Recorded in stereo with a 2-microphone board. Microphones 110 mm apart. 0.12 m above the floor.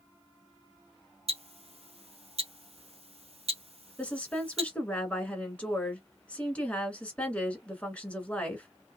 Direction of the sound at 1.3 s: 70° right (ahead or behind).